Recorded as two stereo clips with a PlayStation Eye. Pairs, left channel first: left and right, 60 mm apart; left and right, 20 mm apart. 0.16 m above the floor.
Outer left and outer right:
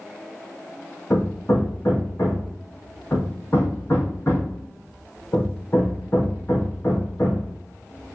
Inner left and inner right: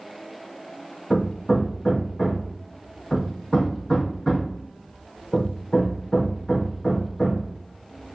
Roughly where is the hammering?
Left.